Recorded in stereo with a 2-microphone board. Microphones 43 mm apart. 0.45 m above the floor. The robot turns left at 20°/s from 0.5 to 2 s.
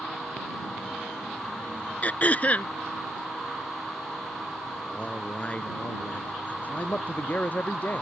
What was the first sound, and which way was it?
Throat clearing, 40° left (ahead or behind).